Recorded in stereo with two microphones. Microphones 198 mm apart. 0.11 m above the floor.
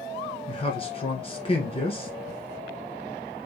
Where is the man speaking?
30° left (ahead or behind), 1.2 m.